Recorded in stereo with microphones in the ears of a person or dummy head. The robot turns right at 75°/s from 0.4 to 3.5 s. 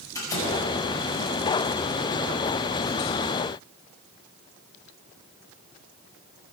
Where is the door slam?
15° left (ahead or behind), 7 m; by 0.6 s 5° left (ahead or behind), 7 m.